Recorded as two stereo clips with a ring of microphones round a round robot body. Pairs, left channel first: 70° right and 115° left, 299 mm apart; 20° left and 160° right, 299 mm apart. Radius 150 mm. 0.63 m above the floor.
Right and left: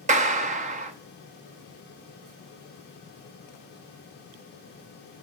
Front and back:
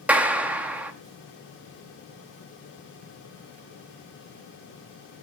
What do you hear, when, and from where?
0.1 s a clap: 125° left, 0.8 m